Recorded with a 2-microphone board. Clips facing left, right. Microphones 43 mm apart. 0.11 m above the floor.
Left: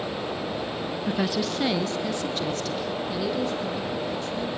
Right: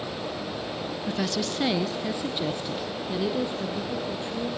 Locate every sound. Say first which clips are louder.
1.1 s a woman speaking: left 2 dB; 15° left (ahead or behind), 1.1 m; by 4.5 s 25° right (ahead or behind), 5 m